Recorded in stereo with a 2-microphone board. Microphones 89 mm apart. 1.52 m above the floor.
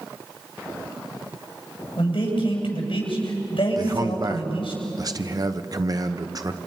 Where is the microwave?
I don't hear a microwave.